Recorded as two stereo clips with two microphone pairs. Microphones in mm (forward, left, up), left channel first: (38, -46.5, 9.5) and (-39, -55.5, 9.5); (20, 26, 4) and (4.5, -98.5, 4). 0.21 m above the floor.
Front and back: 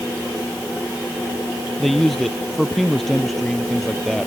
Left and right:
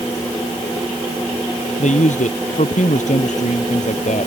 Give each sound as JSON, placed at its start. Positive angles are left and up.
{"t": 1.8, "sound": "a man speaking", "azimuth_deg": 95}